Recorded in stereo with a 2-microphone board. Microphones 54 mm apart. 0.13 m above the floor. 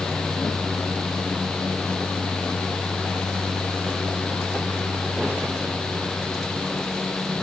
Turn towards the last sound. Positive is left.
No sound to turn to.